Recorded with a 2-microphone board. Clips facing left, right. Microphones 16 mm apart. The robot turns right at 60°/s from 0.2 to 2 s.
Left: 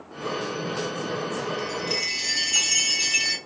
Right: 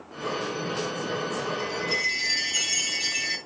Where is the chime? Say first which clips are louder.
Right 2 dB; 50° left (ahead or behind), 2.5 m; by 3.4 s 55° left (ahead or behind), 2.5 m.